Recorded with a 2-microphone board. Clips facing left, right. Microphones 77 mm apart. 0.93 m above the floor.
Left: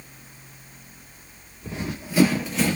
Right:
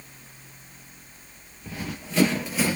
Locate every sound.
1.6 s running footsteps: 25° left (ahead or behind), 1.0 m; by 2.8 s 10° right (ahead or behind), 0.9 m